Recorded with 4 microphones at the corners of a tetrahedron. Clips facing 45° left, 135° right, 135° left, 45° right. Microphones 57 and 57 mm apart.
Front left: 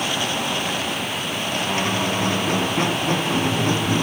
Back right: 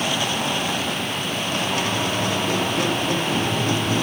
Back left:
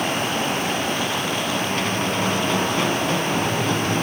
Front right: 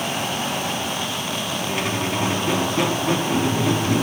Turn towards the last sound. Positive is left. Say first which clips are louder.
# front left 3 dB, back left 1 dB
turn(degrees=30)